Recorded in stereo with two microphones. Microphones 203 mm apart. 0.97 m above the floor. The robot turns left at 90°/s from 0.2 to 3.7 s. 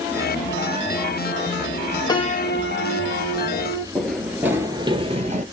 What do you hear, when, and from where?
2.1 s a piano: 160° left, 0.8 m; by 3.9 s 15° left, 0.8 m
4.0 s running footsteps: 5° left (ahead or behind), 1.1 m; by 5.4 s 40° right (ahead or behind), 1.1 m